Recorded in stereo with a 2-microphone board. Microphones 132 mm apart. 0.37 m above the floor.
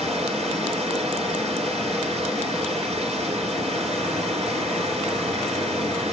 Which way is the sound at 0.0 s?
55° right (ahead or behind).